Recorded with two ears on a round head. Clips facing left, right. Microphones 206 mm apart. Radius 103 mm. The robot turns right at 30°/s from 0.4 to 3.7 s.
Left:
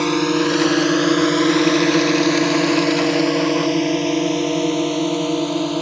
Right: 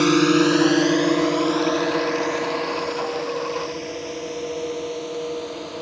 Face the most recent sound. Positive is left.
turn(degrees=70)  # may be behind; listen again after turning